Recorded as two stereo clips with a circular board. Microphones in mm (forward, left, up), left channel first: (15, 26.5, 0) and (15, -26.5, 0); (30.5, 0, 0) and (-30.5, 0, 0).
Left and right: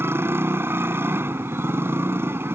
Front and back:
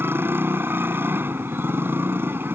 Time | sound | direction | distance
0.0 | a motorcycle | 130° right | ?